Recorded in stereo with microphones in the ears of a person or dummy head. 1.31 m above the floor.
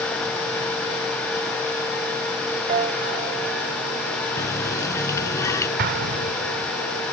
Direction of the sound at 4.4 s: 20° left (ahead or behind).